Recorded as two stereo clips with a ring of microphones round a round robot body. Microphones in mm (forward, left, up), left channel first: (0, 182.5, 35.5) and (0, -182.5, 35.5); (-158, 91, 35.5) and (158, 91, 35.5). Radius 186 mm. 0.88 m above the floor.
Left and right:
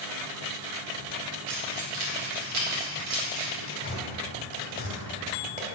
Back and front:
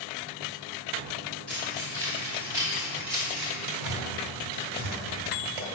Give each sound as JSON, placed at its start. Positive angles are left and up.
{"t": 1.5, "sound": "keys jangling", "azimuth_deg": -110, "distance_m": 1.8}
{"t": 3.7, "sound": "tearing paper", "azimuth_deg": -15, "distance_m": 1.7}